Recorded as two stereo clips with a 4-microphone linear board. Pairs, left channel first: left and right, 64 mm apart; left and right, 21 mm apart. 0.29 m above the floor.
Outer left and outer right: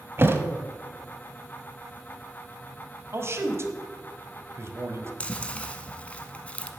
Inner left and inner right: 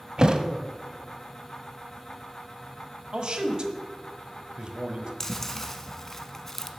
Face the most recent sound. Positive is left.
turn(degrees=20)  # may be behind; listen again after turning